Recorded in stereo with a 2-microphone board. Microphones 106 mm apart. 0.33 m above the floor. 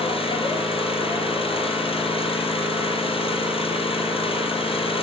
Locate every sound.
0.0 s an engine running: 60° left (ahead or behind), 6 m